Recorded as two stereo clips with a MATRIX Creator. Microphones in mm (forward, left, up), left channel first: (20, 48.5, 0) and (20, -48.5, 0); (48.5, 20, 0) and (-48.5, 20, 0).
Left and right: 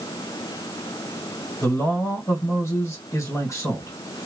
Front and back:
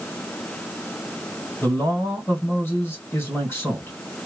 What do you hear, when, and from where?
1.6 s a man speaking: 50° left, 1.9 m